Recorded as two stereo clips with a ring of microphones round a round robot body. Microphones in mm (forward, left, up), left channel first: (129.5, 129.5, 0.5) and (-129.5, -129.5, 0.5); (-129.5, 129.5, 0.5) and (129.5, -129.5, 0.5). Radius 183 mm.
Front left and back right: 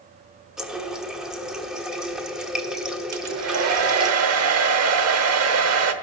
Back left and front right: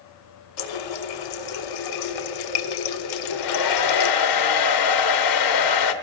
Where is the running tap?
135° left, 1.0 m.